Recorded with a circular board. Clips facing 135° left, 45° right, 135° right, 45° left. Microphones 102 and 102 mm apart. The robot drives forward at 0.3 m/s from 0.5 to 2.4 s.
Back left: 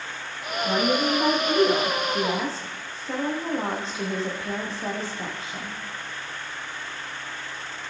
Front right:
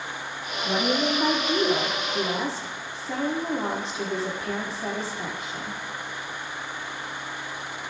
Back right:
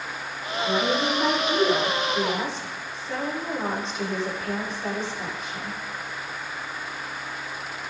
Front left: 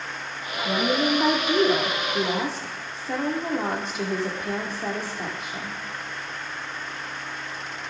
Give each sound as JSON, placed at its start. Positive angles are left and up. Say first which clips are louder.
{"t": 0.7, "sound": "a woman speaking", "louder": "back left 1 dB, front left 1 dB", "azimuth_deg": 70, "distance_m": 5.0}